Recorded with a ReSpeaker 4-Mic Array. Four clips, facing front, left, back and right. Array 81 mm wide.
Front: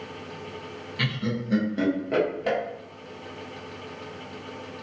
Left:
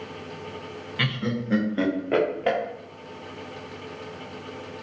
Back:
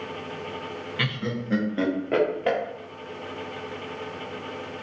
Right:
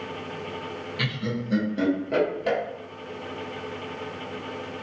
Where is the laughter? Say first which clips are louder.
Left 3 dB, front 1 dB; 125° left, 0.6 m.